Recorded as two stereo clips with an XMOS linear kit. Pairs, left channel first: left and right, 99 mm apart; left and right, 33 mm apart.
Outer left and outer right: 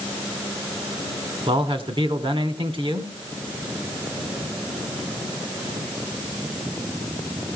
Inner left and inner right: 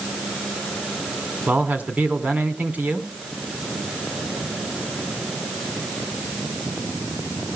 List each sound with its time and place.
1.5 s a man speaking: 60° right (ahead or behind), 2.5 m